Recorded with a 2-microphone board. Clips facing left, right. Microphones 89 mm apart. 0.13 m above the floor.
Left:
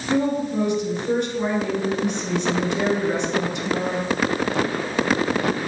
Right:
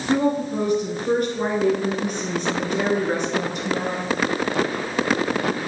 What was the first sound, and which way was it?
A woman speaking, 45° right (ahead or behind).